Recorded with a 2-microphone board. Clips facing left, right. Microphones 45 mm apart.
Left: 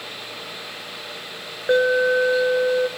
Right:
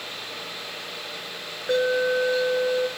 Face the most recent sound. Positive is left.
turn(degrees=25)  # may be behind; listen again after turning